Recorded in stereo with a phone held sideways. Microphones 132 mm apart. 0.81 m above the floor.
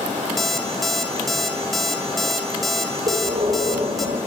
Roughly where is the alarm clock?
Centre.